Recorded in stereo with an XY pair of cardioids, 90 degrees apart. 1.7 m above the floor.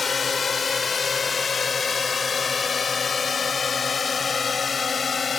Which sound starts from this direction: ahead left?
A drone, at 0.0 s.